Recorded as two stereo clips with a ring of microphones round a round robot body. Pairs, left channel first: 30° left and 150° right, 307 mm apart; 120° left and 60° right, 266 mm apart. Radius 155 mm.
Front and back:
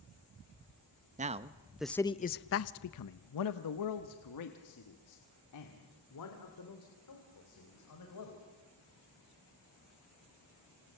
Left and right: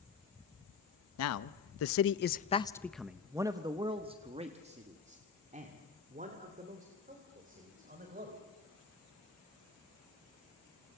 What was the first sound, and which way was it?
A man speaking, 145° left.